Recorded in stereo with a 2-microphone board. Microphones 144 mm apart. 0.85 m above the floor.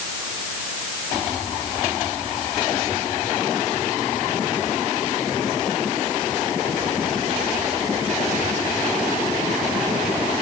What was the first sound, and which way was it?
Only background noise.